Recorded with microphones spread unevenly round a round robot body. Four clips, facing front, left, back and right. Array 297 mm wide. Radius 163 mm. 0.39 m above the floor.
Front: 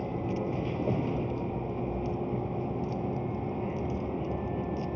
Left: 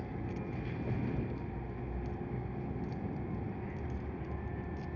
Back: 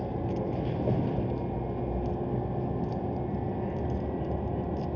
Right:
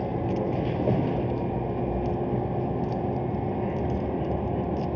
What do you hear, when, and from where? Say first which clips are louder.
0.0 s a vehicle: right 14 dB, even; 75° right